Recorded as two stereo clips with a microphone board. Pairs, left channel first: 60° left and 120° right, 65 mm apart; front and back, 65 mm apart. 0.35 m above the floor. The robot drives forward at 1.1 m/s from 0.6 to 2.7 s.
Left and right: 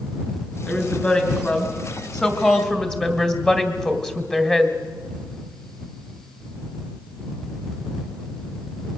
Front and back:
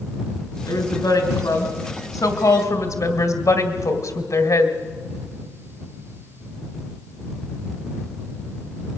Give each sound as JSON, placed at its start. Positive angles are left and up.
{"t": 0.7, "sound": "a woman speaking", "azimuth_deg": -10, "distance_m": 4.0}